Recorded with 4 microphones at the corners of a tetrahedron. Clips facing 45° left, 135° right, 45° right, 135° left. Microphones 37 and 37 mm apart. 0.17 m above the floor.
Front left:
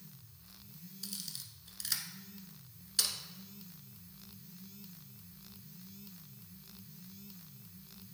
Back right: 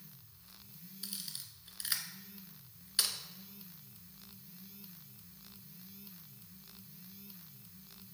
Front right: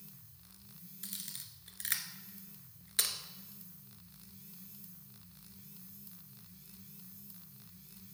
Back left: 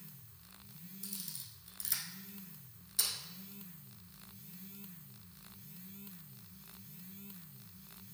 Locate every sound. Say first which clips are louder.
1.0 s a camera shutter: even, front right 2 dB; 65° right, 1.0 m